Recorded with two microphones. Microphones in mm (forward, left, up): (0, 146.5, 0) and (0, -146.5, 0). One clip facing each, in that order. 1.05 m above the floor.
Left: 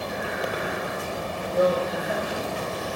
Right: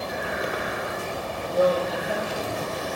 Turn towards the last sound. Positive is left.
turn(degrees=-25)  # may be behind; listen again after turning